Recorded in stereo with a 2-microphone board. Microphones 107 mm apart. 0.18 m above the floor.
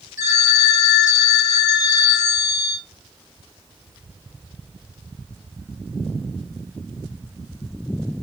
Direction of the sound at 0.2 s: 35° right (ahead or behind).